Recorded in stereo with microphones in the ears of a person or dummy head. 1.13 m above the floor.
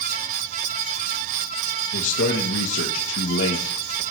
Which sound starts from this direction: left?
A man speaking, at 1.9 s.